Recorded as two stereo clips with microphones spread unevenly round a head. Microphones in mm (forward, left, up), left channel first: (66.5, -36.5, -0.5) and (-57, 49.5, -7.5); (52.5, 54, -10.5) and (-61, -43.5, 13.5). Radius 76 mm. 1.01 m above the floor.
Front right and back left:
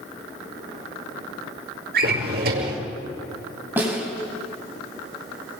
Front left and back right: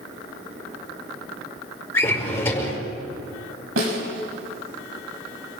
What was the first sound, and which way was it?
A drawer, 115° left.